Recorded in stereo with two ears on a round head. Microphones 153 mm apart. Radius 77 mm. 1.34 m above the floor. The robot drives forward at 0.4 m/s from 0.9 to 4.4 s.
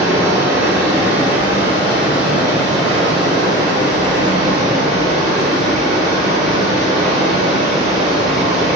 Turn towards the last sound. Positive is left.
turn(degrees=-5)  # may be behind; listen again after turning